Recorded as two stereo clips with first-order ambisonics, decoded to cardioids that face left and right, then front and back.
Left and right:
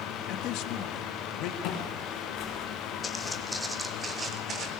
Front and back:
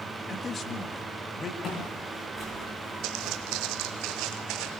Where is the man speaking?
65° left, 1.5 m.